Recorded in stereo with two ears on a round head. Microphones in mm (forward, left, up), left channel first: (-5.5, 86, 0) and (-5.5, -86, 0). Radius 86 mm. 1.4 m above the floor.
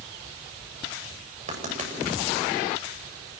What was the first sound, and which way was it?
Writing, 40° right (ahead or behind).